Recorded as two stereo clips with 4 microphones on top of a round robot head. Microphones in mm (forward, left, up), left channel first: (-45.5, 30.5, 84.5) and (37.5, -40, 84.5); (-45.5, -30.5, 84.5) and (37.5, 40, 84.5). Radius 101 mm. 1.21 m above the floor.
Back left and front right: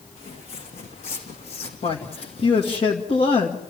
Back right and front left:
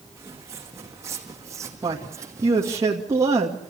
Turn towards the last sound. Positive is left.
turn(degrees=100)